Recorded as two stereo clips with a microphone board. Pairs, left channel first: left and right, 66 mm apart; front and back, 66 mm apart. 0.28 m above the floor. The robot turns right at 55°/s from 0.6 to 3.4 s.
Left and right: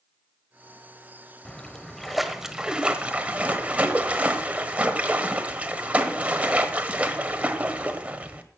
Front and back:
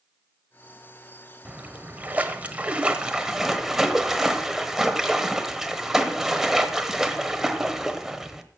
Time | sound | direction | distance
1.4 | a splash | 150° left | 1.1 m